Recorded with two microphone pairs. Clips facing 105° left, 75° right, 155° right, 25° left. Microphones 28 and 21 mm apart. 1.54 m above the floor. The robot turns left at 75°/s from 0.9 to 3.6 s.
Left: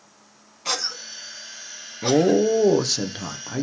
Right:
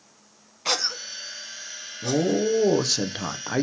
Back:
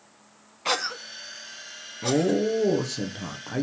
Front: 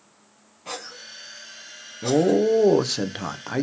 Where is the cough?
150° right, 0.5 m; by 2.4 s 95° left, 0.5 m.